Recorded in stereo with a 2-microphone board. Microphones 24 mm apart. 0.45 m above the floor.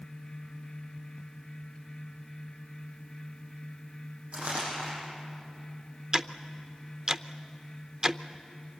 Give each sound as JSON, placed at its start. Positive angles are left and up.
{"t": 4.3, "sound": "crumpling", "side_deg": -60, "distance_m": 9.5}
{"t": 6.1, "sound": "ticking", "side_deg": -30, "distance_m": 0.6}